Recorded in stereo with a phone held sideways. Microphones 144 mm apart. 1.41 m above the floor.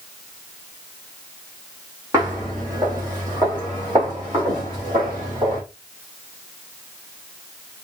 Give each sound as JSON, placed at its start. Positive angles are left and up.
{"t": 2.1, "sound": "footsteps", "side_deg": -25, "distance_m": 3.0}